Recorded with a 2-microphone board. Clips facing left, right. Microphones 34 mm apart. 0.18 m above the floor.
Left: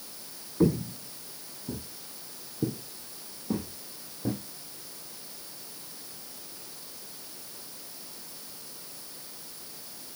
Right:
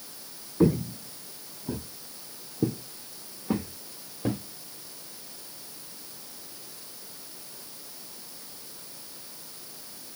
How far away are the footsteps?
About 0.5 m.